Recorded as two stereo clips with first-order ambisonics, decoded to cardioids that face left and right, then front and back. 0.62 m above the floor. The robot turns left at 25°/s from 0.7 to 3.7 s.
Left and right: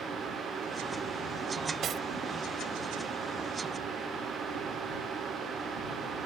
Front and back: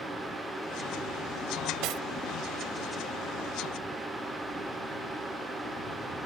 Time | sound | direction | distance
1.8 | cutlery clinking | 145° right | ?